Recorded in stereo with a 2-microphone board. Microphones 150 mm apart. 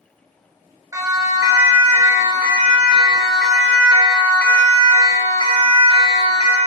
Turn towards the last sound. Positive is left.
turn(degrees=50)  # may be behind; listen again after turning